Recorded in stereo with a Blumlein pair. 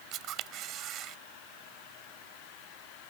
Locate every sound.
0.1 s a camera shutter: 35° right